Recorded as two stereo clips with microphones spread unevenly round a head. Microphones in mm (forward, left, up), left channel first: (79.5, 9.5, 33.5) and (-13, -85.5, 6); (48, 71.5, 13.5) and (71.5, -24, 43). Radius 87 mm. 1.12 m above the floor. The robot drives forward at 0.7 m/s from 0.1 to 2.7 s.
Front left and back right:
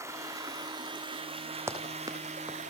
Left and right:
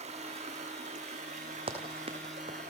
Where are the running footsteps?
60° right, 4 m; by 2.7 s 80° right, 3.5 m.